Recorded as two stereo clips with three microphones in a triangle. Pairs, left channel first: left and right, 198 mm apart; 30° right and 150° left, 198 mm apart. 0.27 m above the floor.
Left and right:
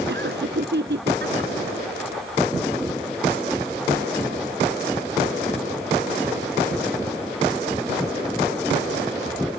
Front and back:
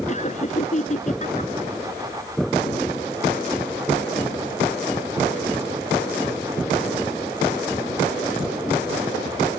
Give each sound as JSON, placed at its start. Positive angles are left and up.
{"t": 0.1, "sound": "laughter", "azimuth_deg": -80}